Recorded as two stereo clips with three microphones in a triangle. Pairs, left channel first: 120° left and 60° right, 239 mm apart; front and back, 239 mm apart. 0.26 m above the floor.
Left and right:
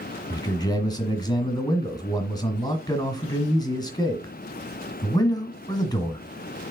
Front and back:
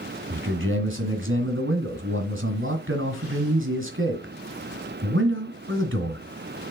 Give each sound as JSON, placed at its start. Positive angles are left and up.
{"t": 0.3, "sound": "a man speaking", "azimuth_deg": -170, "distance_m": 1.7}